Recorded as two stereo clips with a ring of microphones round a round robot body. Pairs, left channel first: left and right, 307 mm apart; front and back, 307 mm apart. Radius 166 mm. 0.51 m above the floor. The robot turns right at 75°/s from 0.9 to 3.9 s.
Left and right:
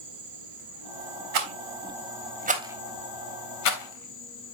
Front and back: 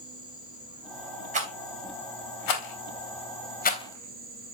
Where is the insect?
105° right, 4 m; by 4.5 s 120° left, 4 m.